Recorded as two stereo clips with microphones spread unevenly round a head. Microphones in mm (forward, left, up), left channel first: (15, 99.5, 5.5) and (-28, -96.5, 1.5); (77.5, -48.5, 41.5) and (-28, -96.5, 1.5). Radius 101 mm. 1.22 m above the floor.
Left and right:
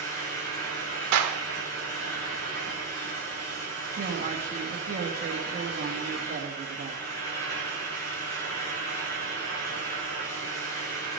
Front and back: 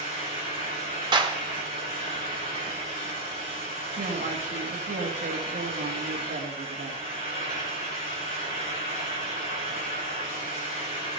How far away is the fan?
About 4.5 m.